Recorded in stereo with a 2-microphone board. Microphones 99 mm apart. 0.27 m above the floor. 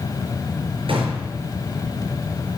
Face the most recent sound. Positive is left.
turn(degrees=-65)  # may be behind; listen again after turning